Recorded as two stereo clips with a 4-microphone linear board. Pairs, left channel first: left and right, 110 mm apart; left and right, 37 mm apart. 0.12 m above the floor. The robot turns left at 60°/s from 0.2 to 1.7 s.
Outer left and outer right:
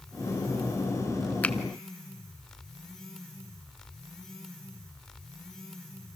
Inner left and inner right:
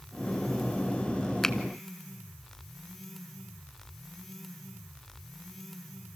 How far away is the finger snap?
About 0.9 m.